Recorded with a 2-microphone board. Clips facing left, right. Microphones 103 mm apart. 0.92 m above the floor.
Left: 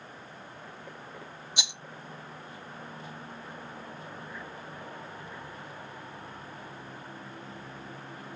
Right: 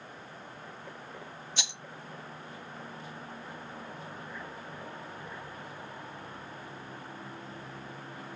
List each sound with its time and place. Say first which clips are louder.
1.6 s a rattle: left 2 dB; 15° left (ahead or behind), 0.7 m